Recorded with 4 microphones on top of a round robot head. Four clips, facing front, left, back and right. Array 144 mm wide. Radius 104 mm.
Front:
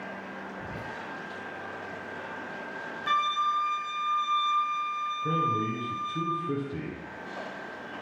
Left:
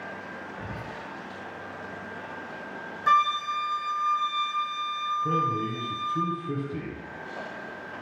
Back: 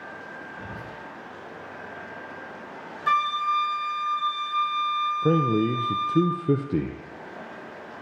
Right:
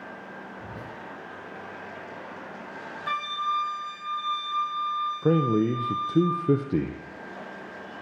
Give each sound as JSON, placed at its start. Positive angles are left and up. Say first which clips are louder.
{"t": 0.6, "sound": "whispering", "louder": "left 3 dB, even", "azimuth_deg": 80, "distance_m": 2.5}
{"t": 3.1, "sound": "a flute", "louder": "left 6 dB, back 3 dB", "azimuth_deg": 125, "distance_m": 1.1}
{"t": 5.2, "sound": "a man speaking", "louder": "right 7 dB, back 6 dB", "azimuth_deg": -130, "distance_m": 0.5}